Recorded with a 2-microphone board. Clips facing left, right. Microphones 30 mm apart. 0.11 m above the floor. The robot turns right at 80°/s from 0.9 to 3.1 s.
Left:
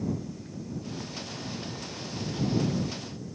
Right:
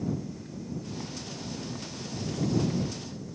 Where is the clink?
I don't hear a clink.